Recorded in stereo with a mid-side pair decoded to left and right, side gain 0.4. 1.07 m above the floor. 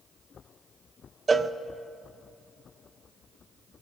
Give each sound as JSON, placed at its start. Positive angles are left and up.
{"t": 1.3, "sound": "a cowbell", "azimuth_deg": -35, "distance_m": 0.6}